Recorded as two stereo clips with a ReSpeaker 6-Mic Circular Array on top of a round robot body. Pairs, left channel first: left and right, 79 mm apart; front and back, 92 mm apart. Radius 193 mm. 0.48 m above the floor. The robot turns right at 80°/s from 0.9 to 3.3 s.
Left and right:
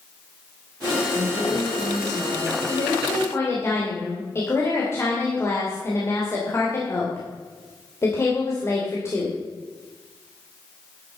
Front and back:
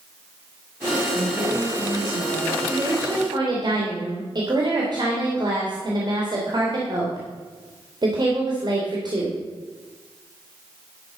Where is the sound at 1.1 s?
65° right, 5.5 m; by 2.6 s 50° left, 5.5 m.